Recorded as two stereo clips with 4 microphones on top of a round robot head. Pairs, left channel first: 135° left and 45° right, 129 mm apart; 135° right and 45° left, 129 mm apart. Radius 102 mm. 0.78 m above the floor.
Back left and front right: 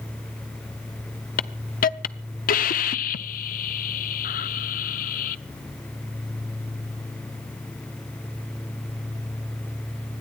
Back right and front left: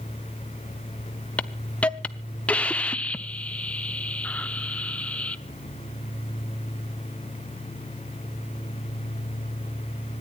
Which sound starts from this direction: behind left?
A hiss, at 1.4 s.